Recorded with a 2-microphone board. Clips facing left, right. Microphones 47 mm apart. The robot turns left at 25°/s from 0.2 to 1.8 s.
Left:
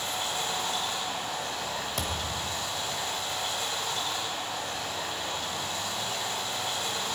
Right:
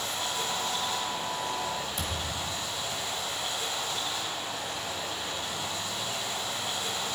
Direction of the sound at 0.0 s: 125° left.